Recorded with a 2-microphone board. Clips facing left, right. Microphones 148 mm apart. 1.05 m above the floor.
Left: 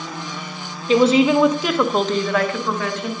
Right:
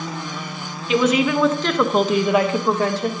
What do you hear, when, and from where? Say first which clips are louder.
0.9 s a woman speaking: left 4 dB; 35° left (ahead or behind), 0.8 m; by 3.1 s 35° right (ahead or behind), 1.0 m